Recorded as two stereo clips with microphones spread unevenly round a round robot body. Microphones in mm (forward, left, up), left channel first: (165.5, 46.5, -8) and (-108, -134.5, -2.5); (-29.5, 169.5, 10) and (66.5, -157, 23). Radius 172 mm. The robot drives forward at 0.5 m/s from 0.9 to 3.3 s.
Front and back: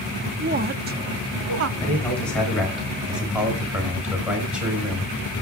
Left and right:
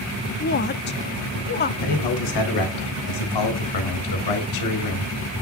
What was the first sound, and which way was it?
A woman speaking, 155° left.